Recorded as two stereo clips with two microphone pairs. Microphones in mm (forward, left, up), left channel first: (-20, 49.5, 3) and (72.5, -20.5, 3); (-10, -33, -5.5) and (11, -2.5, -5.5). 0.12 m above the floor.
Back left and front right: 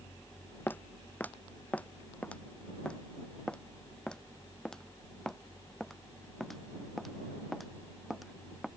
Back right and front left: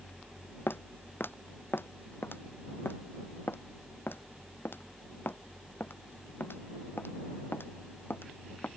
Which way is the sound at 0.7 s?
145° right.